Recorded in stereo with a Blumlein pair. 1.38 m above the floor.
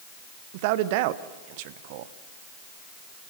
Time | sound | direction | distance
0.5 | a man speaking | 45° right | 0.9 m